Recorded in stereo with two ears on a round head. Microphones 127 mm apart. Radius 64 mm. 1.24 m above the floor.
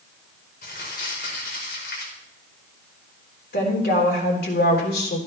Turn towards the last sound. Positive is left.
turn(degrees=85)